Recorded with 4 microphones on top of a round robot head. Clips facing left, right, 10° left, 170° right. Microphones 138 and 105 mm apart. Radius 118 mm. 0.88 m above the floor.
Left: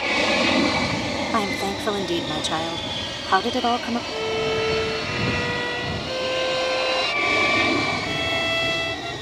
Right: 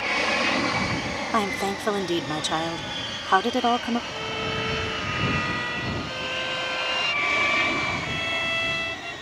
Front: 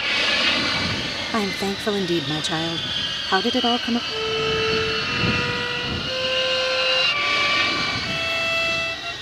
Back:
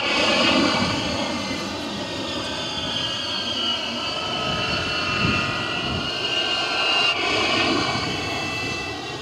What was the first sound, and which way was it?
An aircraft, 150° left.